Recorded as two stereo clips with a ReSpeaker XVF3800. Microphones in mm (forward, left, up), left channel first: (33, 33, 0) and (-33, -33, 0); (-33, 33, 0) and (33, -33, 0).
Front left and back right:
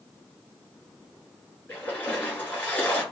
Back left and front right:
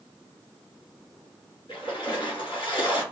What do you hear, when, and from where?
1.7 s a splash: 115° left, 2 m